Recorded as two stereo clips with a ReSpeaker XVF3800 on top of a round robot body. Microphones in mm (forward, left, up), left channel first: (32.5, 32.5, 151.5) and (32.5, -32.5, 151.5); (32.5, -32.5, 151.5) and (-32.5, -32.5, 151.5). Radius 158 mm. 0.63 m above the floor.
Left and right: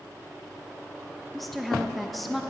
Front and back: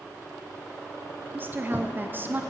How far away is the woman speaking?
About 0.6 m.